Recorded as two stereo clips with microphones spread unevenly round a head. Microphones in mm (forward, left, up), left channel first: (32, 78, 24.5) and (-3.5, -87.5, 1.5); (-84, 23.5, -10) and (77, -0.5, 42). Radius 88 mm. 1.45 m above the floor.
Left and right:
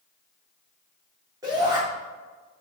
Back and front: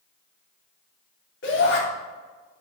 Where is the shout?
175° right, 3.5 m.